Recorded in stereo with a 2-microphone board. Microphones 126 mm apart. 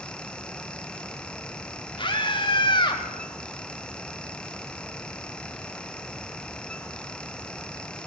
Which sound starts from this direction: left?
A scream, at 2.0 s.